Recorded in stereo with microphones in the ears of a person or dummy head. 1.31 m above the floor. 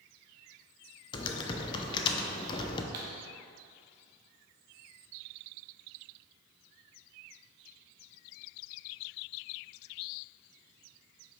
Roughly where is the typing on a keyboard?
Left.